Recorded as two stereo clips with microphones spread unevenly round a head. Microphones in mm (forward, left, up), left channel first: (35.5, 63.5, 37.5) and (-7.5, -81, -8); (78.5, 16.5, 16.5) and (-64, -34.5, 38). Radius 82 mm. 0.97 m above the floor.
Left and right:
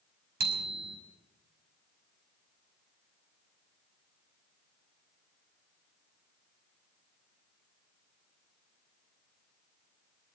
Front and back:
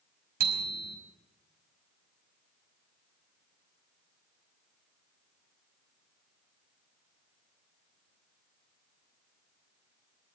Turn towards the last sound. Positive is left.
turn(degrees=-135)